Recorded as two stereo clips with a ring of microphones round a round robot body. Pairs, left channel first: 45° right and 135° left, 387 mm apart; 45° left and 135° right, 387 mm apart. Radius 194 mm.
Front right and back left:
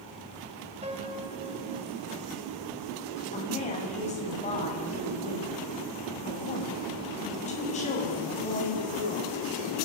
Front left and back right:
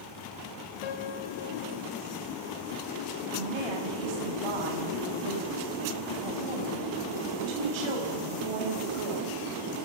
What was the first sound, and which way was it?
A piano, 60° left.